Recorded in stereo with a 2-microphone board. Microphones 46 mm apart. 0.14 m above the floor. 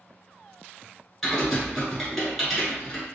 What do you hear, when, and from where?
1.2 s typing on a keyboard: centre (ahead or behind), 1.6 m